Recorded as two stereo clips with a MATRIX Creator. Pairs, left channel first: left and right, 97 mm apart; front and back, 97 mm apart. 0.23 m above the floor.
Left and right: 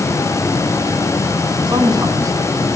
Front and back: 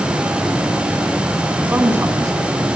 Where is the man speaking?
110° right, 1.9 m; by 2.7 s 140° right, 1.9 m.